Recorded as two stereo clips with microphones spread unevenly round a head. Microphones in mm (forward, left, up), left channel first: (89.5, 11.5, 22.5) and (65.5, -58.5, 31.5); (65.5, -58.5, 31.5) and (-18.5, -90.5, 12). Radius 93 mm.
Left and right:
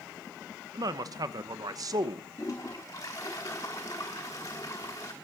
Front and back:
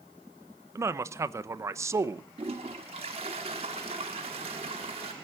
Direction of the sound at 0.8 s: 135° right.